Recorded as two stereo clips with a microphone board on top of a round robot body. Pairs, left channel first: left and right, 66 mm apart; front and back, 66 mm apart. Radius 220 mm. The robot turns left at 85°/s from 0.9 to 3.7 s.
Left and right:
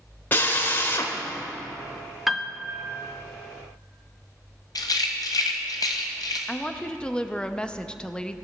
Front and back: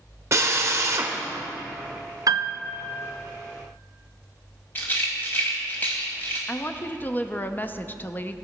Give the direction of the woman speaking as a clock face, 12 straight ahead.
11 o'clock.